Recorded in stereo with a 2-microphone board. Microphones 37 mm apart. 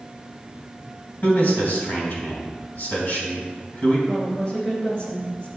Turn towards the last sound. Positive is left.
turn(degrees=35)  # may be behind; listen again after turning